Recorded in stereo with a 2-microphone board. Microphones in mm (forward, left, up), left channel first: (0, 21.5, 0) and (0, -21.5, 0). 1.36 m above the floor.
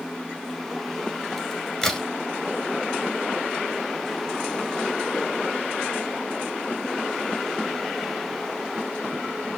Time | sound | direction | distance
1.4 | a crack | 5° left (ahead or behind) | 2 m